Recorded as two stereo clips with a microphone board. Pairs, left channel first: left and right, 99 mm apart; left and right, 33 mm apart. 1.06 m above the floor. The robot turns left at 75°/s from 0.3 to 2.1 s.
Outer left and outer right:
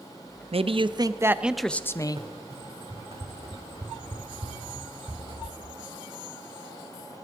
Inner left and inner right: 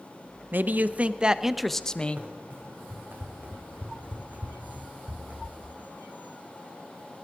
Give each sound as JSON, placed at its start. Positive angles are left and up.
{"t": 0.5, "sound": "a man speaking", "azimuth_deg": -100, "distance_m": 0.7}
{"t": 2.2, "sound": "running footsteps", "side_deg": -75, "distance_m": 4.5}